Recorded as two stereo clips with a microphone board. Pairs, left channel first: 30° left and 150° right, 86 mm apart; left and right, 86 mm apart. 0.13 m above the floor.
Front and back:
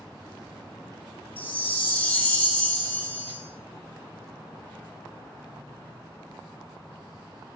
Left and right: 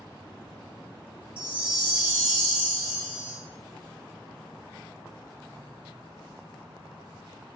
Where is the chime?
25° right, 0.6 m.